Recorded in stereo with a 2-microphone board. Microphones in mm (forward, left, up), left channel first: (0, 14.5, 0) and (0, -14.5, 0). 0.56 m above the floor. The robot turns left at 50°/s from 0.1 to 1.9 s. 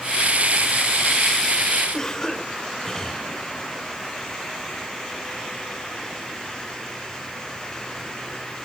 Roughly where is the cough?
Centre.